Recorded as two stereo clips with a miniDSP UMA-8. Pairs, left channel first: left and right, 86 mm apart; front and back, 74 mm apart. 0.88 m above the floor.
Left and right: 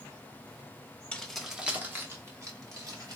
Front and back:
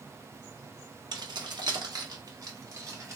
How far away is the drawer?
No drawer in this recording.